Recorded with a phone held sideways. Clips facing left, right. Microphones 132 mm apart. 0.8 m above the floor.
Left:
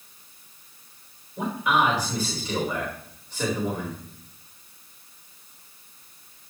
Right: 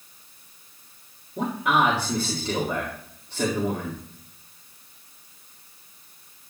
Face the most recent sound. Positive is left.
turn(degrees=-60)  # may be behind; listen again after turning